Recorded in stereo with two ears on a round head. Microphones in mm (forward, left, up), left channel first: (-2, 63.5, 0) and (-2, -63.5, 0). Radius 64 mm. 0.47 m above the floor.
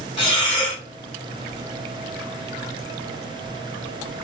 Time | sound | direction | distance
0.2 | breathing | 35° left (ahead or behind) | 1.6 m